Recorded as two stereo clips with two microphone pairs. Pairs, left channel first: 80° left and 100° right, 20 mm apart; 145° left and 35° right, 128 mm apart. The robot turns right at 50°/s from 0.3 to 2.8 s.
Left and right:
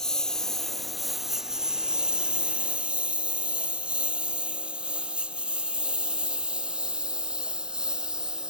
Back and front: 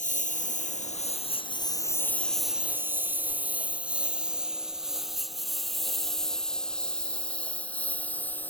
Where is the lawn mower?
150° left; by 8.5 s 135° right.